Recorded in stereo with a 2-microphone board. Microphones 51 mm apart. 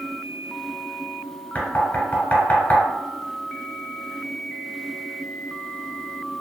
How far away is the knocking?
About 0.9 m.